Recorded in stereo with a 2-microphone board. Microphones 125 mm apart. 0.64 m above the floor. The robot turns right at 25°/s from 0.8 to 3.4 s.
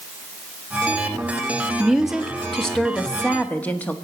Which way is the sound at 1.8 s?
5° right (ahead or behind).